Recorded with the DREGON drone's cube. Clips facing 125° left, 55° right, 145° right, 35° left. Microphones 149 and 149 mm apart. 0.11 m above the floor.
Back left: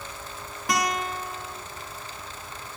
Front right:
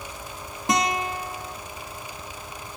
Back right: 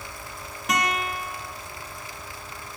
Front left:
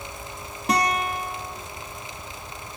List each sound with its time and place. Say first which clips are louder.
0.7 s a guitar: front right 2 dB, front left 3 dB; straight ahead, 1.3 m